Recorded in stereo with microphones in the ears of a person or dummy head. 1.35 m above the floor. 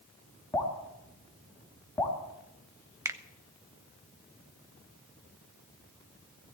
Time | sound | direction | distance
0.5 | dripping | 20° left (ahead or behind) | 3 m
3.0 | a finger snap | 10° right (ahead or behind) | 0.6 m